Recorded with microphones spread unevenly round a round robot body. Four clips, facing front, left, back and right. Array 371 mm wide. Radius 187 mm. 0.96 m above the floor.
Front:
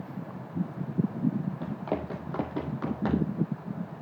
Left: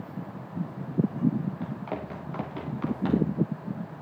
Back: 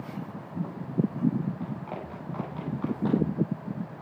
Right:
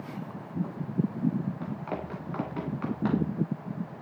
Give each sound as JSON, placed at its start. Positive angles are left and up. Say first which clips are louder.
{"t": 1.6, "sound": "running footsteps", "louder": "left 1 dB, front 4 dB", "azimuth_deg": -15, "distance_m": 7.5}